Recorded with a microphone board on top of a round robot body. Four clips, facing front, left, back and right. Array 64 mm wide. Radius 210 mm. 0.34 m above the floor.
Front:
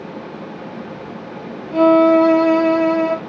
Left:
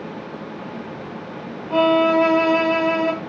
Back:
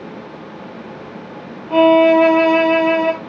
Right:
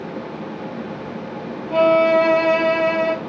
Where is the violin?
Straight behind, 2 m.